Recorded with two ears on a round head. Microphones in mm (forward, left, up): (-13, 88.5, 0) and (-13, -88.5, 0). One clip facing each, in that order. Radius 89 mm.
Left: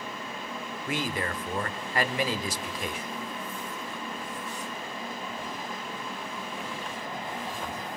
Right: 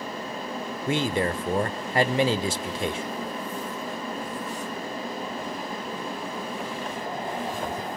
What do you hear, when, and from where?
0.9 s a man speaking: 25° right (ahead or behind), 0.8 m